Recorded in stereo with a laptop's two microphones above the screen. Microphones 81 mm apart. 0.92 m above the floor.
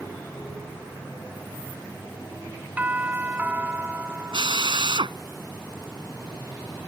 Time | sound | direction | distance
2.8 | a doorbell | 20° right (ahead or behind) | ?
4.3 | a drill | 85° right | ?